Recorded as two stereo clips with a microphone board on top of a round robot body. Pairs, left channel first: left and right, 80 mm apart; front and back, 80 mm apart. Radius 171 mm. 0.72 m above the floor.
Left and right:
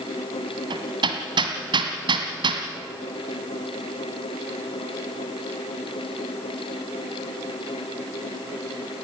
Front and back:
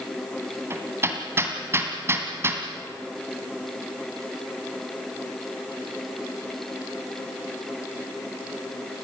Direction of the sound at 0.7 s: 120° right.